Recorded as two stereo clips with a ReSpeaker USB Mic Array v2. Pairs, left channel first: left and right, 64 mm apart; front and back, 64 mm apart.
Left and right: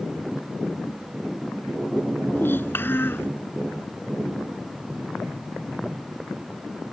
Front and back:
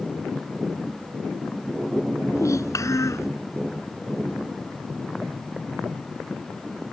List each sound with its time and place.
2.4 s a child speaking: 35° left